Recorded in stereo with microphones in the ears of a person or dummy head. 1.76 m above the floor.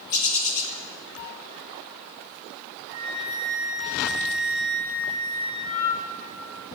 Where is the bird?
65° left (ahead or behind), 2.0 m.